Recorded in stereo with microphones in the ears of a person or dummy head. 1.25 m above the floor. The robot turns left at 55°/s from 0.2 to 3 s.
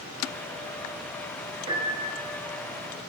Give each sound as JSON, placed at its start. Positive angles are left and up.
{"t": 1.7, "sound": "a piano", "azimuth_deg": -30, "distance_m": 2.0}